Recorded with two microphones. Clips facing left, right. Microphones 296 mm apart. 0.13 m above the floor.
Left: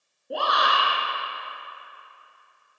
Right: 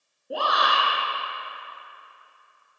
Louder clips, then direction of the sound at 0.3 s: Even; centre (ahead or behind).